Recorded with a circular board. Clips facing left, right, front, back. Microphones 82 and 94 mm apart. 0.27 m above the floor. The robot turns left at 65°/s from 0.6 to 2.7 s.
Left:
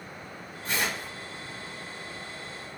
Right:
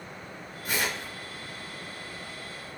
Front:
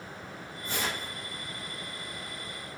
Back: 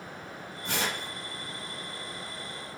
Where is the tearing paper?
170° right, 0.9 m; by 1.1 s 165° left, 0.9 m.